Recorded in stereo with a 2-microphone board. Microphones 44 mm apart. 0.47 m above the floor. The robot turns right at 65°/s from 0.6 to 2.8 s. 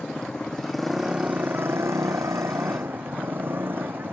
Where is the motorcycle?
165° left; by 4.1 s 50° right.